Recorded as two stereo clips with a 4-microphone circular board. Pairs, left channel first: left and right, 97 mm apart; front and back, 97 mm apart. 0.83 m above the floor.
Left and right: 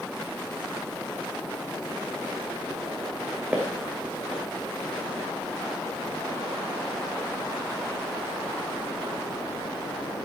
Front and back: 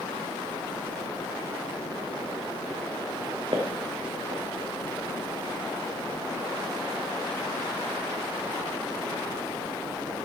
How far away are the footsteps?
About 2 m.